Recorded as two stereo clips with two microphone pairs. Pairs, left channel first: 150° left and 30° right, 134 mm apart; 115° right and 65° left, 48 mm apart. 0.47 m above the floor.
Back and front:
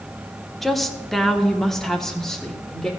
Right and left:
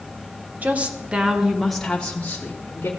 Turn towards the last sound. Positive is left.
turn(degrees=-125)